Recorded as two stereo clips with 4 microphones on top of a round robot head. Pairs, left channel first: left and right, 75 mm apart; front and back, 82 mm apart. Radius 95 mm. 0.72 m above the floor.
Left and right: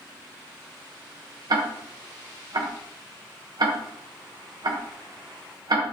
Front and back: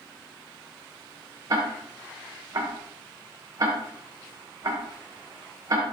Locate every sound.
1.5 s ticking: 125° right, 1.4 m